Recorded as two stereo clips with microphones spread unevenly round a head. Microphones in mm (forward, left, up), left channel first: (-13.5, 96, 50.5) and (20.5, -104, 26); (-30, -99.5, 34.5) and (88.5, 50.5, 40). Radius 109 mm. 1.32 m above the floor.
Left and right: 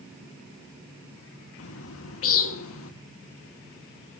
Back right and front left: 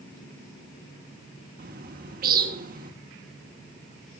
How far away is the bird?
About 1.6 m.